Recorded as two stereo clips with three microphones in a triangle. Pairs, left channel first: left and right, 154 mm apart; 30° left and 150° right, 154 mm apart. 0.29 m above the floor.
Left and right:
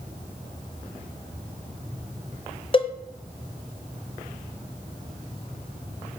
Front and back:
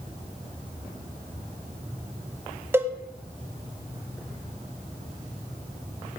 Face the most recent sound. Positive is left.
turn(degrees=140)